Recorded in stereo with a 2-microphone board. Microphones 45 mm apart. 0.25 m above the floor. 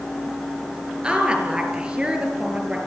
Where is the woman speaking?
20° right (ahead or behind), 5.5 m.